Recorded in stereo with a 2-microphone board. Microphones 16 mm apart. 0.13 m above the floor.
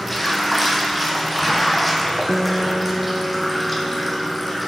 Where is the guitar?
35° right (ahead or behind), 0.7 m.